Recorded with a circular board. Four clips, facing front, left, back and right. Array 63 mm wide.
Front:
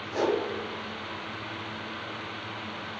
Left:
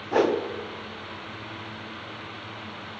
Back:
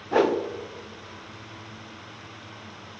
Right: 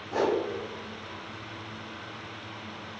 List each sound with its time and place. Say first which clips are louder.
0.1 s a whoosh: left 4 dB, back 5 dB; 145° left, 0.7 m